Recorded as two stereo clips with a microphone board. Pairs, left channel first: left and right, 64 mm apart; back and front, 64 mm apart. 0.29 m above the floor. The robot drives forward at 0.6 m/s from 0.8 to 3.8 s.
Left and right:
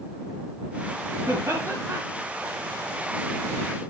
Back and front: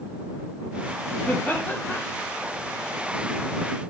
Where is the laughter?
115° right, 4 m; by 2.0 s 120° right, 4.5 m.